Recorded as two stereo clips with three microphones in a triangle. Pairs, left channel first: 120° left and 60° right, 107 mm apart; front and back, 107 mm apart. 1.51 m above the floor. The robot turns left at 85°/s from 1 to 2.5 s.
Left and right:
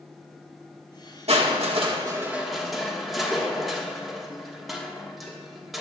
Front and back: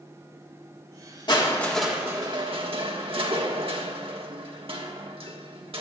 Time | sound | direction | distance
1.3 | crushing | 45° right | 1.5 m